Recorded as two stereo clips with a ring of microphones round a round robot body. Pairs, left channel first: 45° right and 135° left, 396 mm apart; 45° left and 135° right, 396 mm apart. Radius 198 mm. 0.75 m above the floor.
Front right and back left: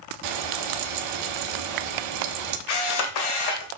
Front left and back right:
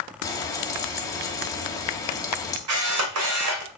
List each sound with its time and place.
0.2 s frying: 125° left, 1.2 m
2.7 s a camera shutter: 80° right, 1.7 m